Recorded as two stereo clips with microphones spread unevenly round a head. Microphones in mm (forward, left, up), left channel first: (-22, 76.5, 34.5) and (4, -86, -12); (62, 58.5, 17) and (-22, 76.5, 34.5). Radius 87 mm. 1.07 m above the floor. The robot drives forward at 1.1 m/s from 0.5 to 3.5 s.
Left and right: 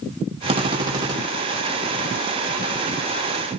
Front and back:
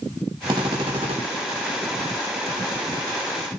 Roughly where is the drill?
Behind right.